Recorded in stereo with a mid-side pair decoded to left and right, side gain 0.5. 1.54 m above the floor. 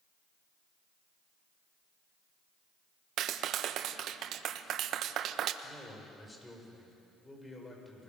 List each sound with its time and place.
3.2 s a clap: 65° right, 1.1 m
5.6 s a man speaking: 15° left, 7.5 m